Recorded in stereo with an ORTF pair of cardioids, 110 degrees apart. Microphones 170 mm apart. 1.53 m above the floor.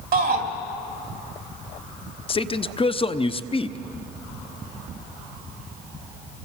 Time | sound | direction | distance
0.1 | a shout | 65° right | 3 m
2.3 | a man speaking | 30° left | 0.8 m